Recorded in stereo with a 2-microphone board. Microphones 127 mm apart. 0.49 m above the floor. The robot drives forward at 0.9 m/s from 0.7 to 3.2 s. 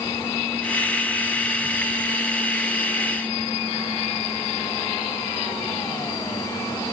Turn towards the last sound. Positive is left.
No sound to turn to.